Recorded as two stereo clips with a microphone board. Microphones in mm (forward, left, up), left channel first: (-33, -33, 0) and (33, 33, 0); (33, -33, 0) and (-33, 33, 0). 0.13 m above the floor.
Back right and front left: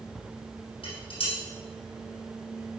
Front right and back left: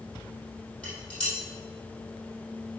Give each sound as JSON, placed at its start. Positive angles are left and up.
{"t": 0.8, "sound": "dishes clattering", "azimuth_deg": -125, "distance_m": 3.5}